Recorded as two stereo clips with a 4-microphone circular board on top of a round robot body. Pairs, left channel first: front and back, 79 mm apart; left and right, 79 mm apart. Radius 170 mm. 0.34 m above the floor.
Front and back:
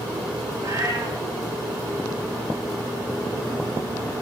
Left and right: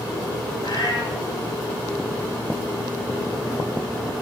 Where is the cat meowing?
130° left, 5 m.